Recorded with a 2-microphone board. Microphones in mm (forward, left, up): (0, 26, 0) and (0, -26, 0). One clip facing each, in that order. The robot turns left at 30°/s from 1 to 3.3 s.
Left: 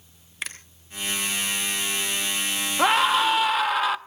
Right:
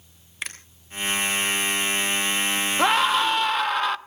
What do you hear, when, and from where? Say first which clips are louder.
0.4 s a finger snap: even; centre (ahead or behind), 3 m
2.8 s a scream: left 1 dB; centre (ahead or behind), 0.6 m; by 4.0 s 5° left (ahead or behind), 0.6 m